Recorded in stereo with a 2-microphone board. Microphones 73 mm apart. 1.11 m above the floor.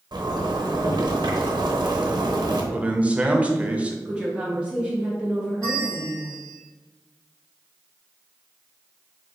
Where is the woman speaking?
15° right (ahead or behind), 0.9 m.